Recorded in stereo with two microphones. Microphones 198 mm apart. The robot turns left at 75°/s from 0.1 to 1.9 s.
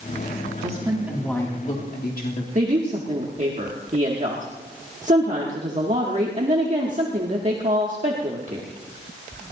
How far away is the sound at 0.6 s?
About 2 m.